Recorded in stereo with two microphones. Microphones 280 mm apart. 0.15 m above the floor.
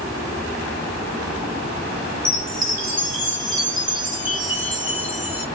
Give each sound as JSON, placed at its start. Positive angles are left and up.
{"t": 2.2, "sound": "a chime", "side_deg": -30, "distance_m": 1.4}